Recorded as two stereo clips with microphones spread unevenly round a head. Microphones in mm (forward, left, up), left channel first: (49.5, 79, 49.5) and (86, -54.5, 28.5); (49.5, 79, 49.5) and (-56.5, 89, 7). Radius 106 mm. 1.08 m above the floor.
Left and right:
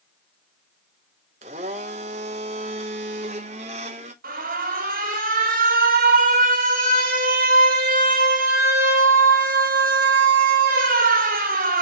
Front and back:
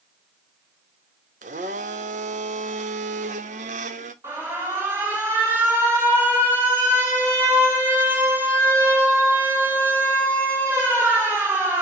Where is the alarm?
110° right, 1.9 m.